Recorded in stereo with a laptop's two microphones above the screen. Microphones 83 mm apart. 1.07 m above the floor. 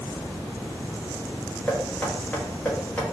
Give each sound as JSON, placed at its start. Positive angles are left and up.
{"t": 1.7, "sound": "knocking", "side_deg": 15, "distance_m": 1.7}